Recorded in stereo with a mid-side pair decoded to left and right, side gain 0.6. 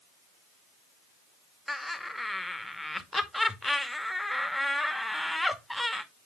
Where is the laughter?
5° left, 2 m.